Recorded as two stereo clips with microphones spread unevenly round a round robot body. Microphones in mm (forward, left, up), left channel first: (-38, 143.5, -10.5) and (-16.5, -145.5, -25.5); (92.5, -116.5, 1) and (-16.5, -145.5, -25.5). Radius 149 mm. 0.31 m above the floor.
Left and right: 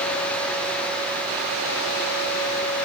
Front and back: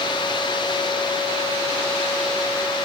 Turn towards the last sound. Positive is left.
No sound to turn to.